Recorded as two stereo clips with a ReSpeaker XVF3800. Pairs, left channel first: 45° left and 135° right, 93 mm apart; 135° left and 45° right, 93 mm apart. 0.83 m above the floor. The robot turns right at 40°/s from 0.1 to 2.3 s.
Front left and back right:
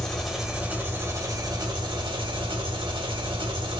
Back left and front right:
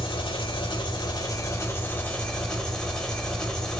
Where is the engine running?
130° left, 1.0 m; by 3.8 s 145° right, 1.0 m.